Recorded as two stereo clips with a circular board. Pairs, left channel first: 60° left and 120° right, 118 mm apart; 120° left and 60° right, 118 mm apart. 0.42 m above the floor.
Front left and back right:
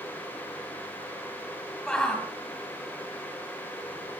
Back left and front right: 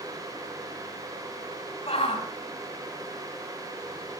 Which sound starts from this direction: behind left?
A shout, at 1.9 s.